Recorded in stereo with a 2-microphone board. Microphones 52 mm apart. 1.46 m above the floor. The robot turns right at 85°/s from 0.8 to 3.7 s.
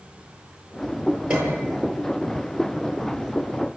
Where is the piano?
20° right, 9 m; by 1.7 s 15° left, 9 m.